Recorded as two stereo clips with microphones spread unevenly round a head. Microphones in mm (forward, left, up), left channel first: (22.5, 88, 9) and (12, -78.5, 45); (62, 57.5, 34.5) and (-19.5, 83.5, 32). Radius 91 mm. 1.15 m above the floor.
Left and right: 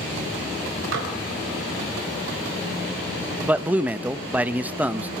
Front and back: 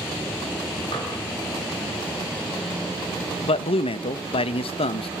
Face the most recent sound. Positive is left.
turn(degrees=-10)